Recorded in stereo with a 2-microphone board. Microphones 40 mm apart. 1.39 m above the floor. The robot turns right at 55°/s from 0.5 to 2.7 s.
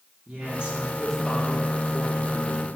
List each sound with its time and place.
0.3 s a woman speaking: 30° right, 3 m; by 2.7 s 90° left, 3 m